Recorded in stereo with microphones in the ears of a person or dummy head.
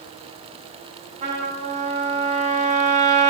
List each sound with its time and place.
1.2 s a trumpet: 35° right (ahead or behind), 2.5 m